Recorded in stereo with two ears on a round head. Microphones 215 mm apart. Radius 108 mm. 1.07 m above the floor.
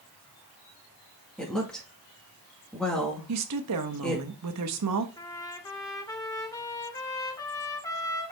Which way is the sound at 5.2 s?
15° left (ahead or behind).